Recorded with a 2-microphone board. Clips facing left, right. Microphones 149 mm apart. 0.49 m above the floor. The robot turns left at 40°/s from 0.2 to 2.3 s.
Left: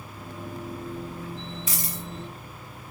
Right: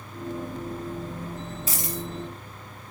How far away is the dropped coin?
About 4 m.